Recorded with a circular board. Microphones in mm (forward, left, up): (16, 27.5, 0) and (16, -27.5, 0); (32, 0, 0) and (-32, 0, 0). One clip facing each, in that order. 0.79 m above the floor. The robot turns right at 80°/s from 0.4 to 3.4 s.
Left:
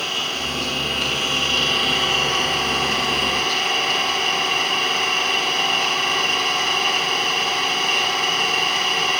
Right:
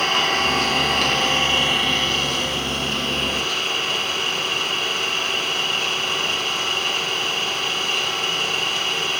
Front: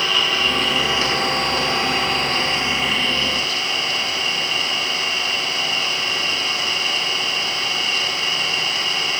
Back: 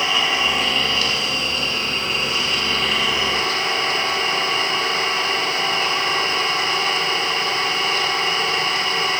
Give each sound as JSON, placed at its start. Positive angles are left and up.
{"t": 0.0, "sound": "an engine running", "azimuth_deg": -115, "distance_m": 6.0}